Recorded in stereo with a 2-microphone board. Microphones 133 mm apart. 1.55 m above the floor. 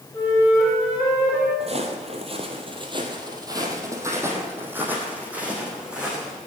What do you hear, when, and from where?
0.1 s a flute: 20° left (ahead or behind), 6 m
1.6 s footsteps: 50° right (ahead or behind), 2.5 m; by 6.4 s 5° right (ahead or behind), 5 m